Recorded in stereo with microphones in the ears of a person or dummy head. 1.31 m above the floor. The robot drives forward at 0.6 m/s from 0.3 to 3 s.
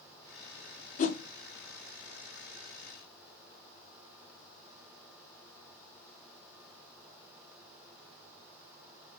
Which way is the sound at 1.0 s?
40° left (ahead or behind).